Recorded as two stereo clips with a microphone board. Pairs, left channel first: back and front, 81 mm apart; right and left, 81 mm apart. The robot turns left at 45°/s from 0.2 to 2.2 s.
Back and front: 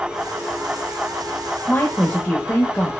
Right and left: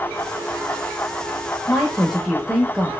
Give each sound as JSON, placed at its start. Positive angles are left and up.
{"t": 1.7, "sound": "a woman speaking", "azimuth_deg": -175, "distance_m": 0.9}